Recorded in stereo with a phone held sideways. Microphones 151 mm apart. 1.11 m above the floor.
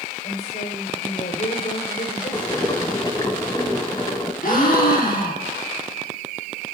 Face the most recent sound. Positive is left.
turn(degrees=65)  # may be behind; listen again after turning